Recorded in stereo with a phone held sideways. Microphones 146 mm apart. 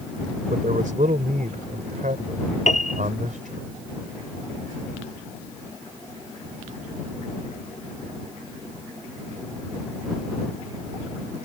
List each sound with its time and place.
0.5 s a man speaking: 75° right (ahead or behind)
2.7 s a piano: 60° left (ahead or behind)